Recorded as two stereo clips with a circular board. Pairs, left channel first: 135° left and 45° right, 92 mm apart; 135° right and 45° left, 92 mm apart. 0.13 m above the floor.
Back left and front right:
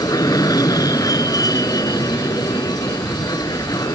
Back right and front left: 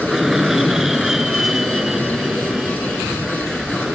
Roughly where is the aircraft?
Behind left.